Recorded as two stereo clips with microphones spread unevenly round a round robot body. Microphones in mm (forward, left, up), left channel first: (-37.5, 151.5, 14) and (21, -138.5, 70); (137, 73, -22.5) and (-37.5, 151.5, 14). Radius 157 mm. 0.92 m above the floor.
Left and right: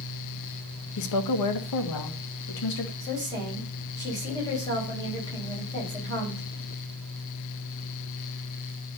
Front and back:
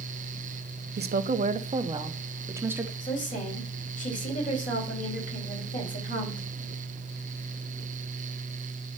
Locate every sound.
1.0 s a woman speaking: 120° left, 1.0 m; by 2.9 s 70° left, 1.7 m
3.0 s a woman speaking: 25° left, 5.5 m